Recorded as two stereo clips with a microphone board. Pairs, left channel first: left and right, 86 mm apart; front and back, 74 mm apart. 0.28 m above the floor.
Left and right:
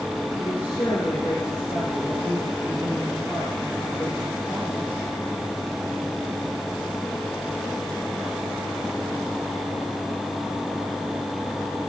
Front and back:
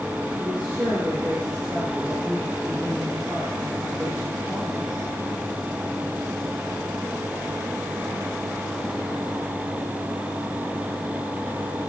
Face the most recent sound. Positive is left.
turn(degrees=115)